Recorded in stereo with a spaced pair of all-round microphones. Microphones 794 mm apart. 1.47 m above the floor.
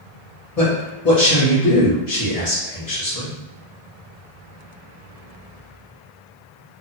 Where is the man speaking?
50° left (ahead or behind), 1.7 m.